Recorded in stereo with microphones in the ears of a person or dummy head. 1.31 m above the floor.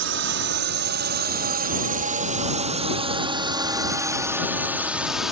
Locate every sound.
0.0 s a drone: 70° right (ahead or behind); by 5.3 s 10° right (ahead or behind)